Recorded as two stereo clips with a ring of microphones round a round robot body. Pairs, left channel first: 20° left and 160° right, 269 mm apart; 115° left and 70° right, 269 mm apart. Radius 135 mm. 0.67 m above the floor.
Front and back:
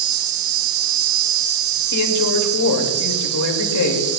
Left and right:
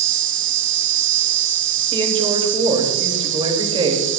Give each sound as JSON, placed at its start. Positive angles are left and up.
{"t": 0.0, "sound": "an insect", "azimuth_deg": -120, "distance_m": 1.4}
{"t": 1.9, "sound": "a woman speaking", "azimuth_deg": 5, "distance_m": 3.0}